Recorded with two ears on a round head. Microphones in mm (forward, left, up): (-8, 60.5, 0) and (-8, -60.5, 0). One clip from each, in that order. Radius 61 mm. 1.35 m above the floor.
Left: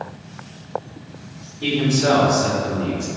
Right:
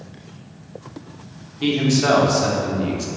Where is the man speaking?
60° right (ahead or behind), 0.7 m.